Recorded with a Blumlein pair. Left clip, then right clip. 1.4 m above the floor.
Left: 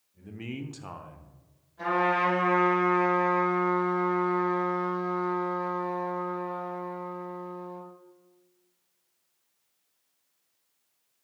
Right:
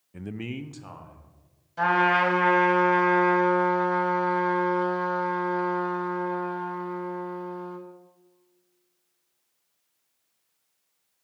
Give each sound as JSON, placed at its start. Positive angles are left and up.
{"t": 0.1, "sound": "a man speaking", "azimuth_deg": -50, "distance_m": 0.5}
{"t": 1.8, "sound": "a trumpet", "azimuth_deg": -45, "distance_m": 4.5}